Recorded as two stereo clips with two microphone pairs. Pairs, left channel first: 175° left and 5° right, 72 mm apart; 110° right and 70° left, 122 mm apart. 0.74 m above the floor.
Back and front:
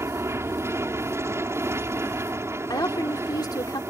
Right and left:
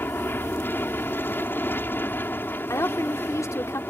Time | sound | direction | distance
0.0 | an aircraft | 40° right | ?
2.7 | a woman speaking | 170° right | ?